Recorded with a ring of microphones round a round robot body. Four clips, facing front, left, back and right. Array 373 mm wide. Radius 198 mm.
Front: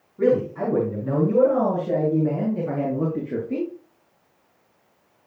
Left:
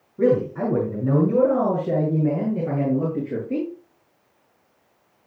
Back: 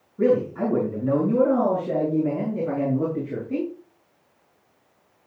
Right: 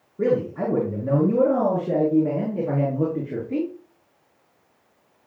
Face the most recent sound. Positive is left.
turn(degrees=95)